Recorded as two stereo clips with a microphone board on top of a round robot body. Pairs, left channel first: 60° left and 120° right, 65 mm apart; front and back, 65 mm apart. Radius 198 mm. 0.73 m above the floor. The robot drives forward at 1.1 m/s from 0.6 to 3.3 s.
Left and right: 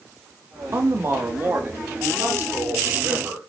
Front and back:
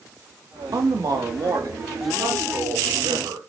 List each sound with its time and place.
0.7 s a man speaking: 165° right, 1.6 m; by 3.4 s 175° right, 4.5 m